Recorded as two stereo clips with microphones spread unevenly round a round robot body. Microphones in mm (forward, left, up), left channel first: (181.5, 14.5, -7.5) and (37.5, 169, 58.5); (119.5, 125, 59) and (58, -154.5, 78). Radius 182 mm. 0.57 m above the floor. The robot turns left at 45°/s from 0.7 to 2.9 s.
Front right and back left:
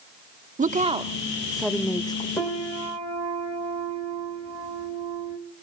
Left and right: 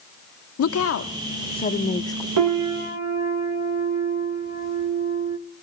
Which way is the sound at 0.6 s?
70° left.